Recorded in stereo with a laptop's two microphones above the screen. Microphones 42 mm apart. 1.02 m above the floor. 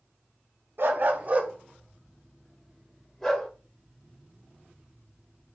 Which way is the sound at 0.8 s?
55° right (ahead or behind).